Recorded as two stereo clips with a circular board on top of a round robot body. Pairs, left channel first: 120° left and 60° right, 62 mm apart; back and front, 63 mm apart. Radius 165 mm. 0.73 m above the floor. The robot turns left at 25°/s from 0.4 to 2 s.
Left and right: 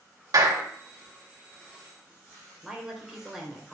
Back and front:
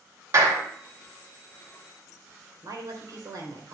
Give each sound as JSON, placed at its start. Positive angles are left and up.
{"t": 0.3, "sound": "a clap", "azimuth_deg": -35, "distance_m": 2.5}
{"t": 2.6, "sound": "a woman speaking", "azimuth_deg": 25, "distance_m": 3.0}